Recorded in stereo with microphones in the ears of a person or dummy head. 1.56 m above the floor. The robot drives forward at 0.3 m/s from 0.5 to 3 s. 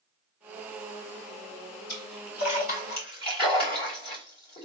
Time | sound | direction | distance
1.9 | a splash | 50° left (ahead or behind) | 2.5 m